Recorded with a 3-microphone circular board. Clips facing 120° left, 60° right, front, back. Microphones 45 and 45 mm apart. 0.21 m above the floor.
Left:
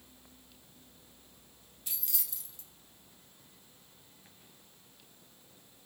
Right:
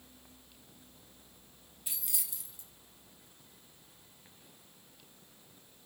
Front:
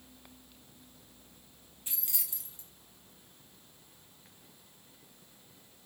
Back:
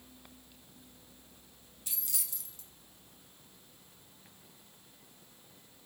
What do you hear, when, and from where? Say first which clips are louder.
1.9 s keys jangling: even, even; 5° left, 1.1 m